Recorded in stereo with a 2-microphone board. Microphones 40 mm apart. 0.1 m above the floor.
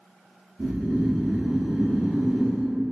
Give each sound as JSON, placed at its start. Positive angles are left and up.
{"t": 0.6, "sound": "snoring", "side_deg": -15, "distance_m": 1.4}